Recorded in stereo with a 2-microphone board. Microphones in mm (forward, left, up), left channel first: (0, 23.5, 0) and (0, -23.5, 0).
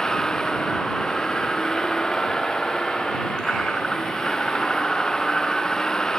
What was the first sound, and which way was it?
A vehicle, 15° left (ahead or behind).